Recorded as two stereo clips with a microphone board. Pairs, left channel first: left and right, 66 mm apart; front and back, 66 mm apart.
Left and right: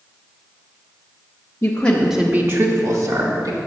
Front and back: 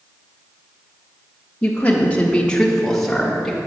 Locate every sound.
1.6 s a woman speaking: 55° left, 1.0 m; by 3.6 s 90° right, 2 m